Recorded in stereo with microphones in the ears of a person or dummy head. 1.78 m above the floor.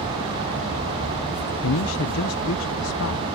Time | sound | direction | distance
1.6 | a man speaking | 65° left (ahead or behind) | ?